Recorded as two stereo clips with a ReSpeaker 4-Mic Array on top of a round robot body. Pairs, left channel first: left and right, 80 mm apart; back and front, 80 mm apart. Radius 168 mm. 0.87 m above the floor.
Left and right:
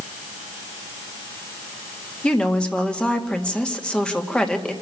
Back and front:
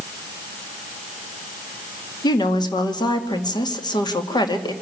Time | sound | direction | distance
2.2 | a woman speaking | 165° left | 2.5 m